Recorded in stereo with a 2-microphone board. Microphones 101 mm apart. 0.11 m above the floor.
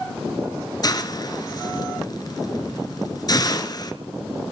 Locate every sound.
0.8 s a hiss: 40° left (ahead or behind), 1.4 m